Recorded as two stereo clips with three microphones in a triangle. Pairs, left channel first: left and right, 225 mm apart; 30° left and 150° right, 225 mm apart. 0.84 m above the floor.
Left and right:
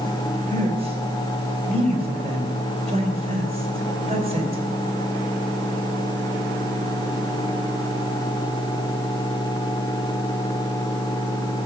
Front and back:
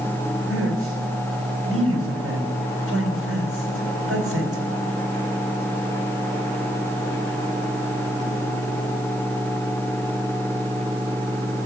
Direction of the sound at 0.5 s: 155° right.